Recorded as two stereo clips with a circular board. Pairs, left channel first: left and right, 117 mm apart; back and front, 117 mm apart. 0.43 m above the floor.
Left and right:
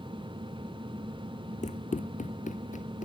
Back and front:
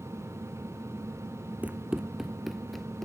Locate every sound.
1.6 s running footsteps: 80° left; by 3.0 s 95° left